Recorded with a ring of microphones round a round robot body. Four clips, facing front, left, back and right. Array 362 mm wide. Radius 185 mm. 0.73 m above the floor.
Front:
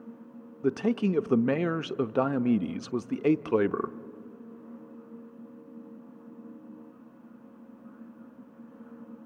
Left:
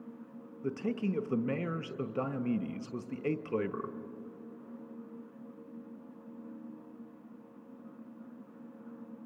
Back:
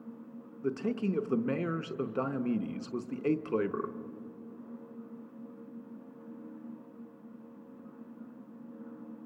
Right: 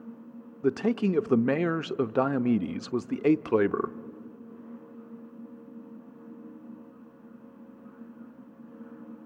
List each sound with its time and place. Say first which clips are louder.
0.6 s a man speaking: right 8 dB, front 6 dB; 55° right, 0.6 m